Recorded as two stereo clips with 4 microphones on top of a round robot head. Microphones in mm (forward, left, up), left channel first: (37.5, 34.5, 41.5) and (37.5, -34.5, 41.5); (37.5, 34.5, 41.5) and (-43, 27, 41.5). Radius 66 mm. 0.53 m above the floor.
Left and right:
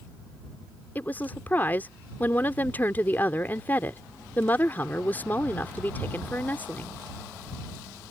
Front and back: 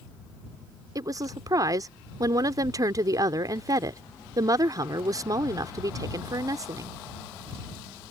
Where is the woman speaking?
155° left.